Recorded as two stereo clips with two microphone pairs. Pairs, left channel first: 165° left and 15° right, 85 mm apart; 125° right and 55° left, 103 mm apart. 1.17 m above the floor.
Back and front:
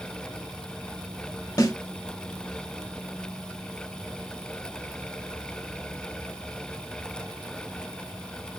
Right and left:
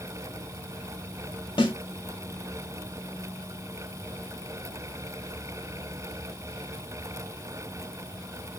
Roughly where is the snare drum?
Behind right.